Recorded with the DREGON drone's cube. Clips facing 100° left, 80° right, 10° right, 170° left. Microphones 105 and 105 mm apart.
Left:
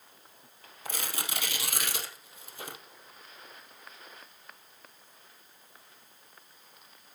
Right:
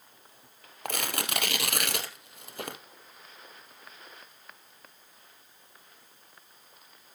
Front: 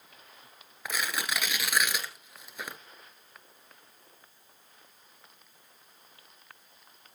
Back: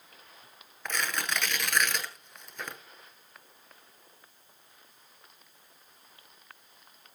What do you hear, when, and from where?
0.8 s tearing paper: 95° right, 1.5 m